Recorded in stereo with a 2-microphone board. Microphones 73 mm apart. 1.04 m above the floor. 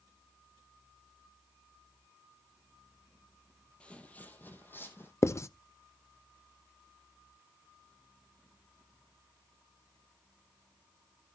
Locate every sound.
3.8 s footsteps: 15° left (ahead or behind), 1.4 m; by 5.1 s 30° left (ahead or behind), 2 m
5.2 s writing: 40° left (ahead or behind), 0.5 m